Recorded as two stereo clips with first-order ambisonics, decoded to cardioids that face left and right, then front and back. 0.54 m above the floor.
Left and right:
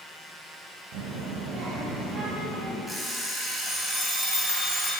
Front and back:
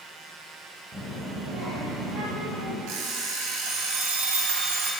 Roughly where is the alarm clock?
Behind.